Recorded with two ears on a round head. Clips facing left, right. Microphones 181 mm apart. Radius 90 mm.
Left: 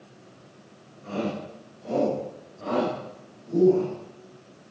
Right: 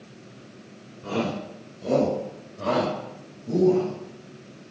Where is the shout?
60° right (ahead or behind), 3.5 m; by 3.9 s 75° right (ahead or behind), 5 m.